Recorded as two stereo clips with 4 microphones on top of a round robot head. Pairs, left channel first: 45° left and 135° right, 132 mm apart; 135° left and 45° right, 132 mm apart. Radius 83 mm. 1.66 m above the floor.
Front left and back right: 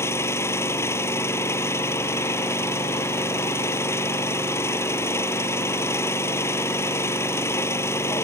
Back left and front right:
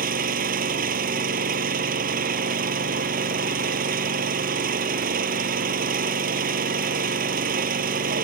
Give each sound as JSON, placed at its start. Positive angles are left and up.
{"t": 0.0, "sound": "an engine running", "azimuth_deg": -25}